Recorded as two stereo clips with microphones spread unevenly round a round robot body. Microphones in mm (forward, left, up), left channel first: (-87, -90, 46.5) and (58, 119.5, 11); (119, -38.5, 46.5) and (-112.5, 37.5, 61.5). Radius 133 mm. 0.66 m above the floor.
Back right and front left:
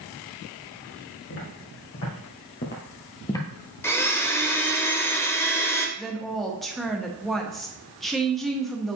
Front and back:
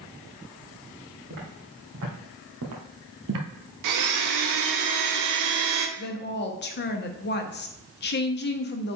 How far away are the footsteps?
About 3 m.